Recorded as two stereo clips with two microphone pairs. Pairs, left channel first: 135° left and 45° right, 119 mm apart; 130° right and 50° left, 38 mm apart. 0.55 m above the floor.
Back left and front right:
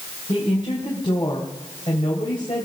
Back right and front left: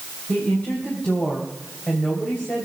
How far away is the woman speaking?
About 3.5 m.